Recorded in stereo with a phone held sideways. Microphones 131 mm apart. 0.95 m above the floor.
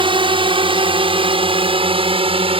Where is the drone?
40° right (ahead or behind); by 2.6 s 45° right (ahead or behind).